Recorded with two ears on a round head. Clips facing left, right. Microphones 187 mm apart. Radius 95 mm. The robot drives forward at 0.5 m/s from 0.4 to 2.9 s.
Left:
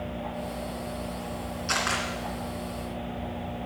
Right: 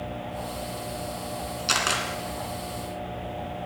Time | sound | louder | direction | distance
1.7 | a camera shutter | right 1 dB | 50° right (ahead or behind) | 2.5 m